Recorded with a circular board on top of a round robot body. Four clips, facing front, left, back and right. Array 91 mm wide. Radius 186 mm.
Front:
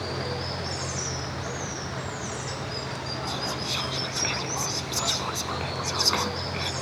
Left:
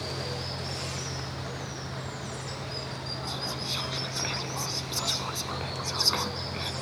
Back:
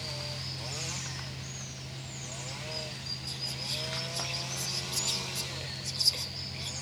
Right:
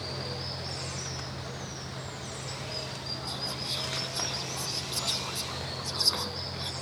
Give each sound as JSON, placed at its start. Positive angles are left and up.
{"t": 0.0, "sound": "running water", "azimuth_deg": 10}
{"t": 3.3, "sound": "whispering", "azimuth_deg": 20}